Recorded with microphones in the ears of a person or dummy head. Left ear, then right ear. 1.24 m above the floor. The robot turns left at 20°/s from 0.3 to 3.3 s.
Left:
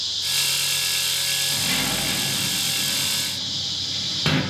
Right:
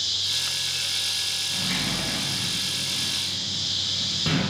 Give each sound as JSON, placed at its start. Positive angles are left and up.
{"t": 1.5, "sound": "a sliding door", "side_deg": 30, "distance_m": 0.7}